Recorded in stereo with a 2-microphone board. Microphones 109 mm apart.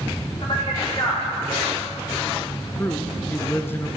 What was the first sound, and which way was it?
A man speaking, 45° left (ahead or behind).